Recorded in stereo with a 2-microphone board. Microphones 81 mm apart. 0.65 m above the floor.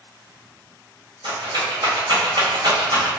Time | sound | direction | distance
1.2 | a rattle | 80° right | 1.7 m